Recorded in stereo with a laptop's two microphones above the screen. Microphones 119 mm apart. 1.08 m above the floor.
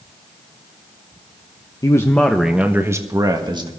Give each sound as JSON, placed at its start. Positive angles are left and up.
{"t": 1.8, "sound": "a man speaking", "side_deg": 30, "distance_m": 0.8}